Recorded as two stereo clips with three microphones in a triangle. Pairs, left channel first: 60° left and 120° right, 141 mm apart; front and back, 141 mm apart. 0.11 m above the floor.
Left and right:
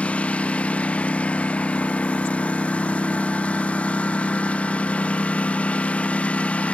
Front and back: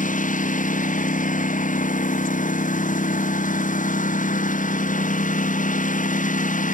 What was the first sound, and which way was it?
A lawn mower, 20° right.